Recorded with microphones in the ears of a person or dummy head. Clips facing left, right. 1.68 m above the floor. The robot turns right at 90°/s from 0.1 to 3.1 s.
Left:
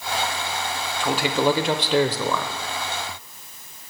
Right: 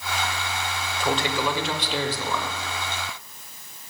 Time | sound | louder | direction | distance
1.0 | a man speaking | left 4 dB | straight ahead | 0.7 m